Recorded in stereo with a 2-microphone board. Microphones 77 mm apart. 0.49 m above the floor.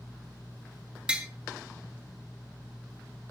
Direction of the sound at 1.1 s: 15° right (ahead or behind).